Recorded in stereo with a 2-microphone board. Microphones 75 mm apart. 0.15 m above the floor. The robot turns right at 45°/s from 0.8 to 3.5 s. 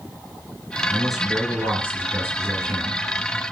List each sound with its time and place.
0.9 s a man speaking: 170° left, 2 m; by 3.0 s 95° right, 2 m